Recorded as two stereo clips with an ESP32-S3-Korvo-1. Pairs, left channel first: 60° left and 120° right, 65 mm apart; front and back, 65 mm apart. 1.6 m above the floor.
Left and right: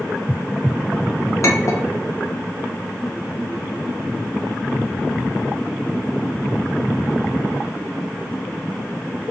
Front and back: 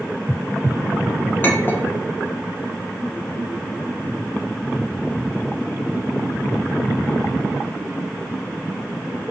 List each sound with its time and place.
1.4 s a clink: 45° left, 0.8 m